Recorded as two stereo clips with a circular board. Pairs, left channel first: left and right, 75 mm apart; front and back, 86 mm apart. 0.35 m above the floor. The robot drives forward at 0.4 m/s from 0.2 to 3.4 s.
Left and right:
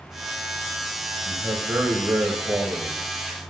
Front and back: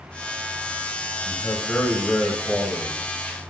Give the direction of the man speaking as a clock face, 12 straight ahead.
2 o'clock.